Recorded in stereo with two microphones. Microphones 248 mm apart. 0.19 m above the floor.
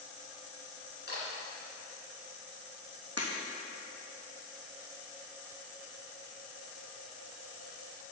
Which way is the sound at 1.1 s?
45° left (ahead or behind).